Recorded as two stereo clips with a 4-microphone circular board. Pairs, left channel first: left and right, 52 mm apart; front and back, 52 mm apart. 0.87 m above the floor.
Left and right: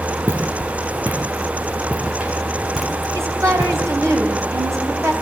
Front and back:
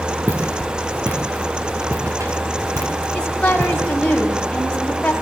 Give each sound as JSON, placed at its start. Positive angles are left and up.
{"t": 0.3, "sound": "footsteps", "azimuth_deg": -135, "distance_m": 3.5}
{"t": 3.1, "sound": "a woman speaking", "azimuth_deg": -70, "distance_m": 5.0}